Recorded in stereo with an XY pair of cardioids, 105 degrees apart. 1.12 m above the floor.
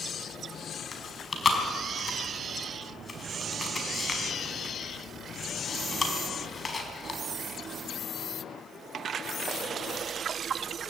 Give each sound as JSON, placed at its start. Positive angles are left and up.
{"t": 0.9, "sound": "chewing", "azimuth_deg": 30, "distance_m": 4.5}